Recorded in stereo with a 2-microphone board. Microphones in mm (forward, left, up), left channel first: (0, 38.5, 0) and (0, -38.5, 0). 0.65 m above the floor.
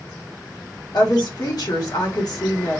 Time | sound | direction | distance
0.9 | a woman speaking | 60° left (ahead or behind) | 1.1 m